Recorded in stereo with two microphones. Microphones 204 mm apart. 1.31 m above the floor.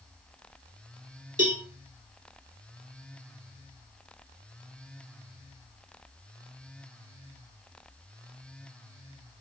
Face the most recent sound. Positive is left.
turn(degrees=-40)  # may be behind; listen again after turning